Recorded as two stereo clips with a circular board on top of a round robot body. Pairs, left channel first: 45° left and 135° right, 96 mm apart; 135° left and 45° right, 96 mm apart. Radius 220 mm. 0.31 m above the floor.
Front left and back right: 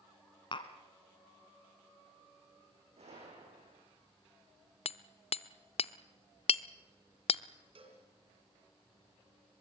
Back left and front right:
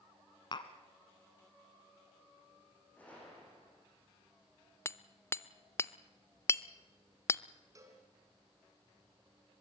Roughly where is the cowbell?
Right.